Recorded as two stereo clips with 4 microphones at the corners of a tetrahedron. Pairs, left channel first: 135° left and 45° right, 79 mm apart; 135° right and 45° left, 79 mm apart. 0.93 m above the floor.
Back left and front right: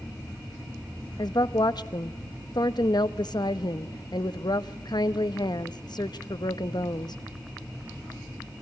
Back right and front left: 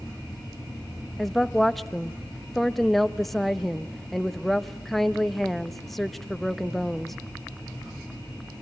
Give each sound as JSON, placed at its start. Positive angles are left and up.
{"t": 1.2, "sound": "a woman speaking", "azimuth_deg": 135, "distance_m": 0.9}